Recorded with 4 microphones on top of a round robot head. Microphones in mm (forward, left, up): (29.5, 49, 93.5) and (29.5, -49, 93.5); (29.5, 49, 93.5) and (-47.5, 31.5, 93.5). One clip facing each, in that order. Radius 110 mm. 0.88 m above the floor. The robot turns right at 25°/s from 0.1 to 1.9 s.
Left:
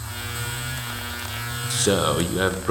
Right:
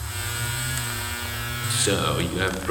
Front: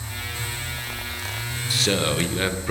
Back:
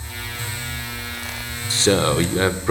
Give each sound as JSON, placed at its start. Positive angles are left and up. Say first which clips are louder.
{"t": 1.7, "sound": "a man speaking", "louder": "left 3 dB, back 6 dB", "azimuth_deg": 135, "distance_m": 0.6}